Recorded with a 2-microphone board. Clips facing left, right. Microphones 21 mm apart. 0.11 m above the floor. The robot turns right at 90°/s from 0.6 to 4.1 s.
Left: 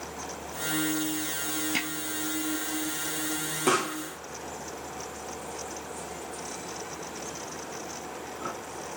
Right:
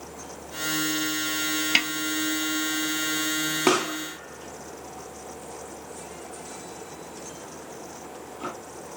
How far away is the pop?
About 1.9 m.